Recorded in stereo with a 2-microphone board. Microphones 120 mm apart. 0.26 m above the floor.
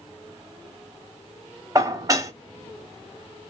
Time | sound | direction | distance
1.8 | dishes clattering | 30° right (ahead or behind) | 0.7 m